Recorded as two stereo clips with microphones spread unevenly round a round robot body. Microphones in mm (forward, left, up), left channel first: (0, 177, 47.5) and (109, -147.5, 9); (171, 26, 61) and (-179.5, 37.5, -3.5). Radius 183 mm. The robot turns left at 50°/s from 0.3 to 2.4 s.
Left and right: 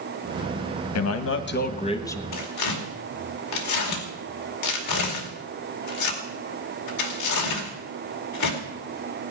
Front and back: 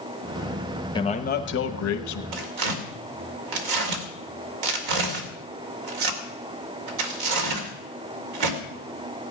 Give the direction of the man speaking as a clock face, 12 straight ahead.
9 o'clock.